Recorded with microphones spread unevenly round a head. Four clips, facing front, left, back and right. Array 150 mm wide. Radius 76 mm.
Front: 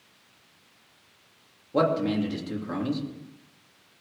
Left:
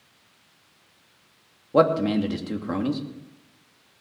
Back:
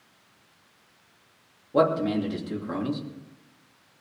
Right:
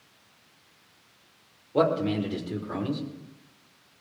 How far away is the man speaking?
About 3 m.